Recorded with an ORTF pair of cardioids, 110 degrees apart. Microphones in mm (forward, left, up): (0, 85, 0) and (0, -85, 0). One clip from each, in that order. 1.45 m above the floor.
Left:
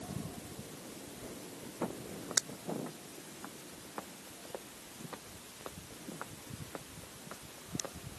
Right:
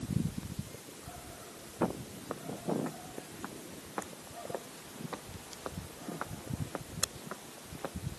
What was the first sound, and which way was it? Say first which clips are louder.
Footsteps: right 6 dB; 35° right.